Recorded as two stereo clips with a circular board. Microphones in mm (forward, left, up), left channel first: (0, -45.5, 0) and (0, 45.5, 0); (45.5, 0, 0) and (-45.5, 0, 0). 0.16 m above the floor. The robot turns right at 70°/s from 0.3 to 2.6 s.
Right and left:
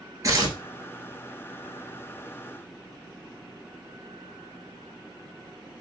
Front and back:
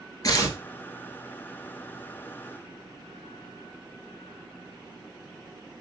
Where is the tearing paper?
45° left, 1.0 m; by 0.6 s 60° left, 1.0 m.